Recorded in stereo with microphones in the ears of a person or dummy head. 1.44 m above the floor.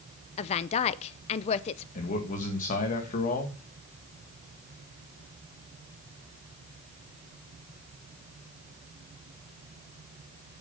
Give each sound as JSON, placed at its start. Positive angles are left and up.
{"t": 0.4, "sound": "a woman speaking", "side_deg": 40, "distance_m": 0.6}
{"t": 1.9, "sound": "a man speaking", "side_deg": 40, "distance_m": 2.0}